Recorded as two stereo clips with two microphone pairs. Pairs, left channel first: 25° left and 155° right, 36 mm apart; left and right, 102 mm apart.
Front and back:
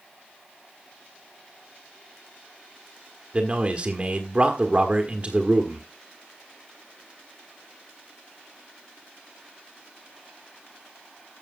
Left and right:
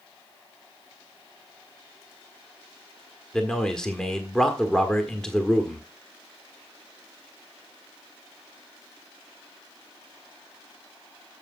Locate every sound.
3.3 s a man speaking: 170° left, 1.5 m